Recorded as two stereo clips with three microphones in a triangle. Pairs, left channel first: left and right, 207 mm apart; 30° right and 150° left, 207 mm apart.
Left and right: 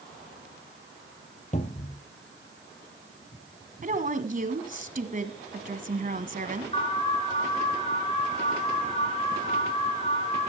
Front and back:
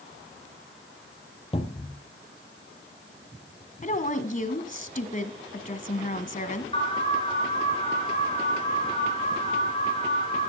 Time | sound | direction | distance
1.5 | a cupboard door | 35° left | 1.6 m
3.8 | a woman speaking | 60° right | 1.4 m
6.7 | an alarm | 30° left | 4.5 m